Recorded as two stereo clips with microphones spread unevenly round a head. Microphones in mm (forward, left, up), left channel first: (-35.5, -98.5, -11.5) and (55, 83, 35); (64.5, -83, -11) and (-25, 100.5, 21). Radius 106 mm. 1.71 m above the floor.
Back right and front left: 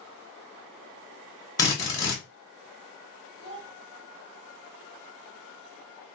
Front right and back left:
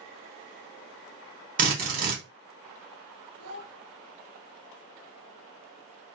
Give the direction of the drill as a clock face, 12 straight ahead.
6 o'clock.